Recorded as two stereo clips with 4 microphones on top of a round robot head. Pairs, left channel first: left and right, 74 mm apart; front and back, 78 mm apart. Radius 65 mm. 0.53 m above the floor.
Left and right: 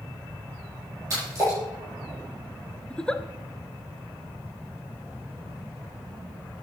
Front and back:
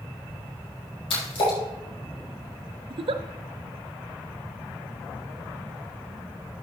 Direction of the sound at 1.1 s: 30° right.